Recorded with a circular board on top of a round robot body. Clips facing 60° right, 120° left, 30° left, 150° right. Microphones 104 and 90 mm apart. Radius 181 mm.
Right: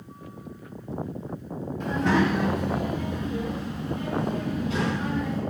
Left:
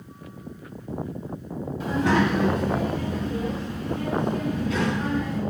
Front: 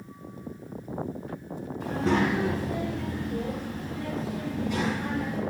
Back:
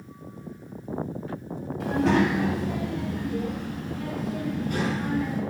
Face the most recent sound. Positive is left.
turn(degrees=-115)